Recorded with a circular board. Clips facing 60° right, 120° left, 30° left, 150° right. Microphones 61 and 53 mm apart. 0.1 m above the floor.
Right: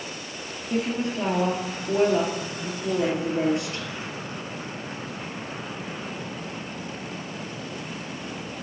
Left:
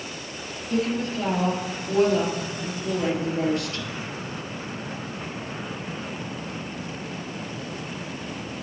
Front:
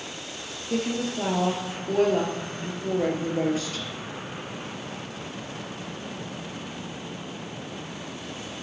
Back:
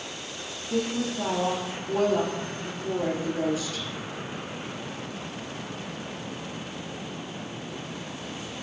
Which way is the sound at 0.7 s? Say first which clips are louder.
Left 1 dB, even; 5° left.